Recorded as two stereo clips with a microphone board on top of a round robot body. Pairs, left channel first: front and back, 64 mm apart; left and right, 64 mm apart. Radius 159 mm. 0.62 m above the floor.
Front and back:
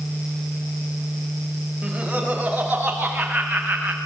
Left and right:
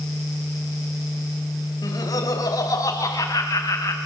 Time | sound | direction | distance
1.8 | laughter | 100° left | 5.5 m